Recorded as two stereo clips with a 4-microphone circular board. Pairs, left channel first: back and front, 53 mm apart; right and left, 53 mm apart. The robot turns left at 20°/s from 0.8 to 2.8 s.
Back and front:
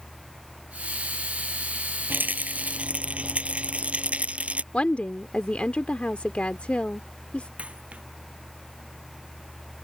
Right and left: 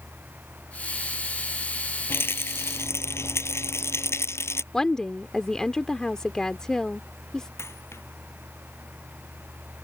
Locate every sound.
2.1 s a rattle: 50° right; by 4.6 s 65° right
4.7 s a woman speaking: 155° right
7.6 s a dropped coin: 65° right